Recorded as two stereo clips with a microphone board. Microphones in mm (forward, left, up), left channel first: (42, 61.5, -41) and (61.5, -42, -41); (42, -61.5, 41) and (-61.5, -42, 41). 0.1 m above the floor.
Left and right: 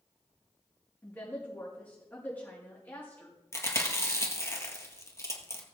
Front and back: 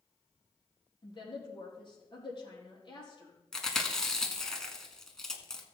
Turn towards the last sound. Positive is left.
turn(degrees=70)